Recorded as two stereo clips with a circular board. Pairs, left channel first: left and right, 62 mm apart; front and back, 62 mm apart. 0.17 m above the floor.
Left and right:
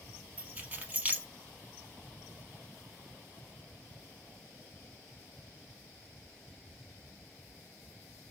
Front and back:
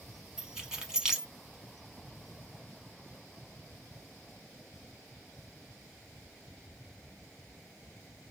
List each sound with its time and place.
0.4 s keys jangling: 115° right, 0.7 m